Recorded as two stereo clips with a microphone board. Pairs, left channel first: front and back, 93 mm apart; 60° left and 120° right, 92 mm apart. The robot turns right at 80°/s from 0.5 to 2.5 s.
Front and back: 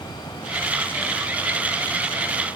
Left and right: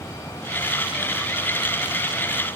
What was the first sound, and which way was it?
Only background noise.